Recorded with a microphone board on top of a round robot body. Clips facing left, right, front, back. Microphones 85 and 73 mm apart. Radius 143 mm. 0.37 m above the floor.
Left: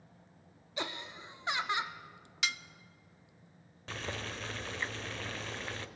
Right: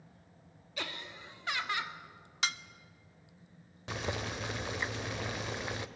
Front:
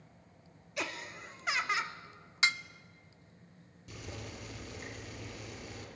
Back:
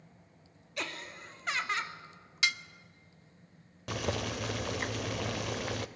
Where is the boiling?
165° right, 0.7 m.